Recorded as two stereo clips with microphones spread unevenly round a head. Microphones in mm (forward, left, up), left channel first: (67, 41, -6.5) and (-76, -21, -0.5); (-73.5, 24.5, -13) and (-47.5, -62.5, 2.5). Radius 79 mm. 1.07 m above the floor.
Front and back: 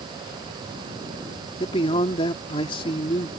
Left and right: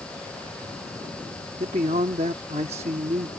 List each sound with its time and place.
1.6 s a man speaking: 35° right